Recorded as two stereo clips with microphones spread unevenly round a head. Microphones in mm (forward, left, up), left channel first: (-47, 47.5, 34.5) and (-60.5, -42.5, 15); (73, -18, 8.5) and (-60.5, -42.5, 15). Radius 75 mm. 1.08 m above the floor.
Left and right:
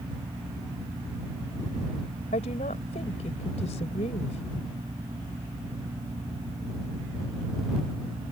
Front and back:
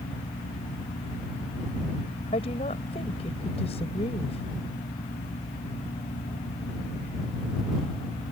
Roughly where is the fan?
Ahead right.